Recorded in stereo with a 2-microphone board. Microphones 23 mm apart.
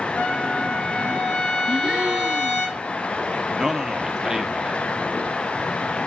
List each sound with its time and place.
0.2 s a trumpet: 80° left, 4.5 m
1.7 s a gasp: 60° right (ahead or behind), 1.1 m
3.6 s a man speaking: 30° right (ahead or behind), 1.1 m